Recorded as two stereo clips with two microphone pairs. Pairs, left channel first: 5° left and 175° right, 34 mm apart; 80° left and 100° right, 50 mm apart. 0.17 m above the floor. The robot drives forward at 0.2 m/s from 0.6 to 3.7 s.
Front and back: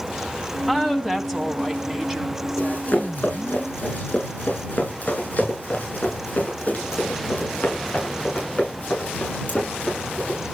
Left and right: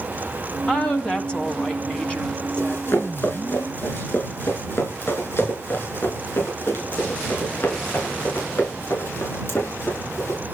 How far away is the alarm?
I don't hear an alarm.